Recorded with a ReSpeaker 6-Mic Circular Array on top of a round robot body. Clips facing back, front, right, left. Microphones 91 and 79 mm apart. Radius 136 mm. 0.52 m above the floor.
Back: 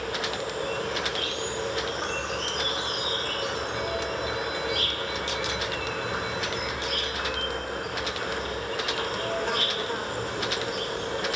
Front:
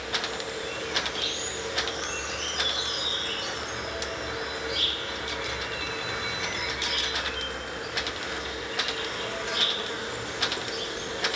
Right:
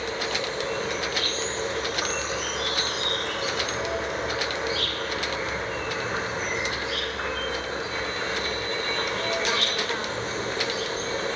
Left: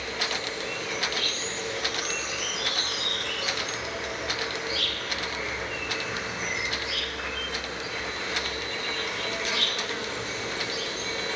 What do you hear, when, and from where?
0.0 s an insect: 140° right, 3 m